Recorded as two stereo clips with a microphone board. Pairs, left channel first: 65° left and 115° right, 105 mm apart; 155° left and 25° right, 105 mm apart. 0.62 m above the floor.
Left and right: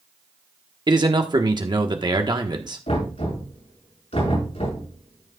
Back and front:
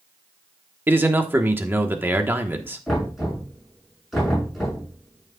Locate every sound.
0.9 s a man speaking: 90° right, 1.1 m
2.9 s knocking: 70° left, 7 m